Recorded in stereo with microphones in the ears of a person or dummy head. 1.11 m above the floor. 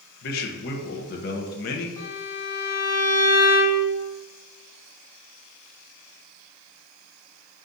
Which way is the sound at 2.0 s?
20° left (ahead or behind).